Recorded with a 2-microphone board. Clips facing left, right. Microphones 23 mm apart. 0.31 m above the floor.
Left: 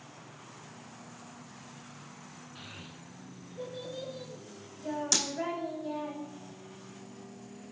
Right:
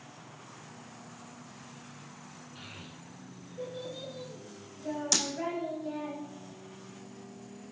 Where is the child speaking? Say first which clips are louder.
Even; 5° left (ahead or behind), 1.6 m; by 6.1 s centre (ahead or behind), 1.2 m.